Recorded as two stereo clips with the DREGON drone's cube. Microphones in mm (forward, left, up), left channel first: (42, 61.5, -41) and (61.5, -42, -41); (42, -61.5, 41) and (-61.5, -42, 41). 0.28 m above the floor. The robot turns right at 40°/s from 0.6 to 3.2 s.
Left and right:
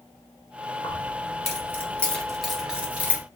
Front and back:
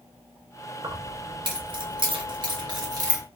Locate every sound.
0.8 s keys jangling: 125° left, 0.8 m; by 3.2 s 140° right, 0.8 m